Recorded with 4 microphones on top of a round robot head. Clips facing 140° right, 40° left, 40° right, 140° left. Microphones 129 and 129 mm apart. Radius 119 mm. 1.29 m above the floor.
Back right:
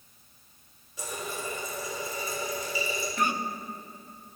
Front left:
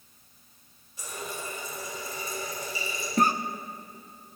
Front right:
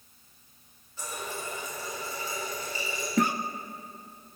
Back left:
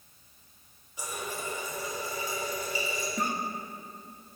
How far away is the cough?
About 0.5 m.